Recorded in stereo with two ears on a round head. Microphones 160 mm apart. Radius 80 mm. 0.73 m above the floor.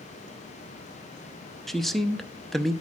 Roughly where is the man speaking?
Centre.